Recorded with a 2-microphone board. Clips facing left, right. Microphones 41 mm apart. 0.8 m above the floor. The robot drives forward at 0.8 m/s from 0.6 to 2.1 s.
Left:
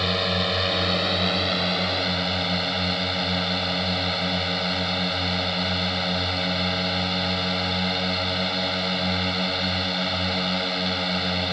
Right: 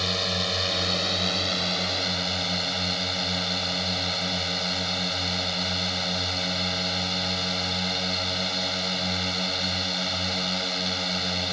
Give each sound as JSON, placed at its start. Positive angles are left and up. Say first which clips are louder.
{"t": 0.0, "sound": "a drone", "louder": "left 4 dB", "side_deg": 15}